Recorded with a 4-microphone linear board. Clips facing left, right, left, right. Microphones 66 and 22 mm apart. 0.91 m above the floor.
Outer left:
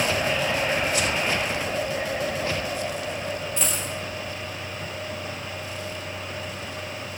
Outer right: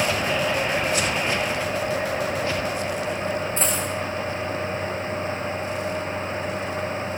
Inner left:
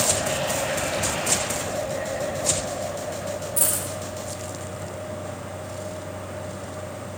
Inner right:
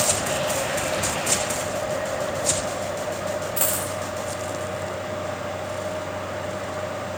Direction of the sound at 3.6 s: 35° right (ahead or behind).